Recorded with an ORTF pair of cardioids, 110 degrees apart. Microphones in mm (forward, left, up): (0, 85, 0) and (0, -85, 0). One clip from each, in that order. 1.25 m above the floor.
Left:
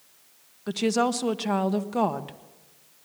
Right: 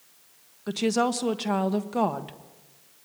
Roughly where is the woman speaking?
Ahead.